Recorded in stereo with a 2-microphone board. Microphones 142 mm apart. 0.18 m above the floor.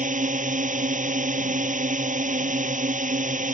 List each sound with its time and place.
0.0 s a drone: 65° right (ahead or behind)